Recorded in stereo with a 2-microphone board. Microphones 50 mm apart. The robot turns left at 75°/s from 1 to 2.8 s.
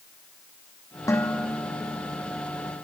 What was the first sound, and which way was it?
Dishes clattering, 90° left.